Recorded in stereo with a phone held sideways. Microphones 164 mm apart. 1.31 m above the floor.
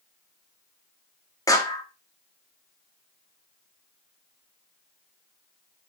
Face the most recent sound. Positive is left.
turn(degrees=20)  # may be behind; listen again after turning